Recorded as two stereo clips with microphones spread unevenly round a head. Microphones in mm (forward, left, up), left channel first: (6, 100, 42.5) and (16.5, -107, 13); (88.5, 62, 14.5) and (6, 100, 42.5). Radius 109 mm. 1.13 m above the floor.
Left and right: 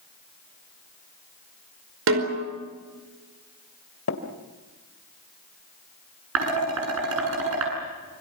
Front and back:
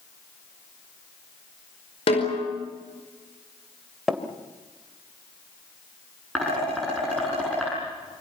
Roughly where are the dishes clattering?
Behind right.